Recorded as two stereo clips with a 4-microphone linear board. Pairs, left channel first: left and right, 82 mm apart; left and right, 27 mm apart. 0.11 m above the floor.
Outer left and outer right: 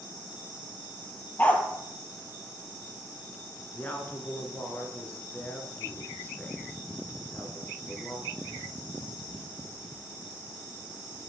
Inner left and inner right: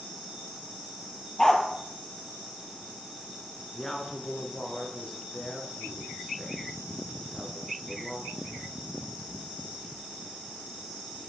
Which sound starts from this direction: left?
A woman speaking, at 3.7 s.